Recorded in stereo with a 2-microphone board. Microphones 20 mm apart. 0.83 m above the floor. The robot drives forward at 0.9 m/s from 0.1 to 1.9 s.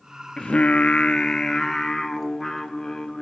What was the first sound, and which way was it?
Singing, 55° left (ahead or behind).